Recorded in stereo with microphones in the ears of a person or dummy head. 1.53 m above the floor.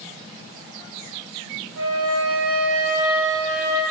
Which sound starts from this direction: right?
A flute, at 1.8 s.